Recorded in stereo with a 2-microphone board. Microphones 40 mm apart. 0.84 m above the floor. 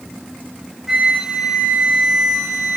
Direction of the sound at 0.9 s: 15° right (ahead or behind).